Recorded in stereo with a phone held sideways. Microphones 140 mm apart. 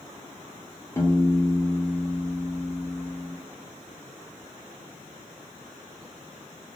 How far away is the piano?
About 0.6 m.